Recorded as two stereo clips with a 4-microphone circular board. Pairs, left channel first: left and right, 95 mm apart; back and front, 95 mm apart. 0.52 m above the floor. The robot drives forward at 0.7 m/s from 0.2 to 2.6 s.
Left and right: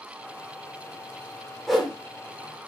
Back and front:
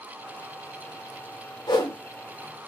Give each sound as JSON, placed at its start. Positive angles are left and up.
{"t": 1.7, "sound": "a whoosh", "azimuth_deg": 180, "distance_m": 1.8}